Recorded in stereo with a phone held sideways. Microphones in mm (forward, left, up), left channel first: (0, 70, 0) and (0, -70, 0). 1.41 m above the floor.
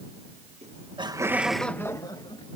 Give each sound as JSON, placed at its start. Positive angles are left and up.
{"t": 0.6, "sound": "laughter", "side_deg": -50}